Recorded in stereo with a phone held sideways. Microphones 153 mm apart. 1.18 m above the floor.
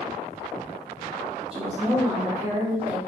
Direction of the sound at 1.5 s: 35° right (ahead or behind).